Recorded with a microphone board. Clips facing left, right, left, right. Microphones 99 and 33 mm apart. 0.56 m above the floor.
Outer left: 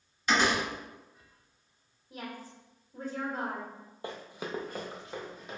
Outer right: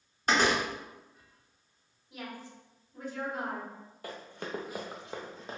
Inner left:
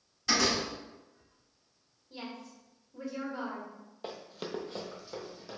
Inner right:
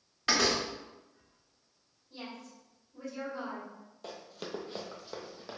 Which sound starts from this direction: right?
A door slam, at 0.3 s.